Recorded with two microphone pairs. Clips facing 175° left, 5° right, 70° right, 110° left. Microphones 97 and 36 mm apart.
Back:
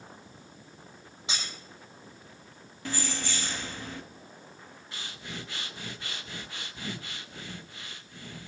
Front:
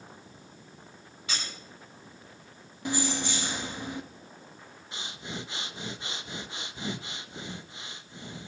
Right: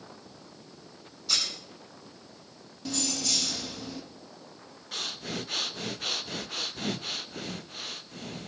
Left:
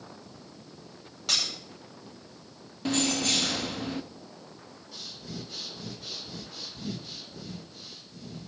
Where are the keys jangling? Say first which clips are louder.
Front 5 dB, left 5 dB; 65° left, 1.0 m.